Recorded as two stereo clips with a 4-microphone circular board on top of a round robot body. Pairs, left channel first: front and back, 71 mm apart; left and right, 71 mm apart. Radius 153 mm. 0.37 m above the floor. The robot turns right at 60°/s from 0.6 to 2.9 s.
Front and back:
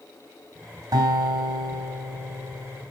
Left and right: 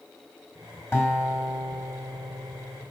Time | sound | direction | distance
0.9 | a guitar | 145° left | 3 m